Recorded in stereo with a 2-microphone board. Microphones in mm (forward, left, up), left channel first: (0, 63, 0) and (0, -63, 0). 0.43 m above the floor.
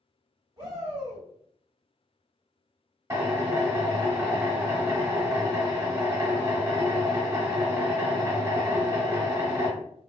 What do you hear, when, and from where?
0.6 s a shout: 40° right (ahead or behind), 1.8 m
3.1 s a drill: 25° right (ahead or behind), 0.8 m